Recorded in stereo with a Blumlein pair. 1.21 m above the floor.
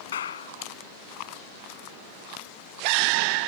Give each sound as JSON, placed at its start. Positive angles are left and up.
{"t": 0.1, "sound": "a clap", "azimuth_deg": 65}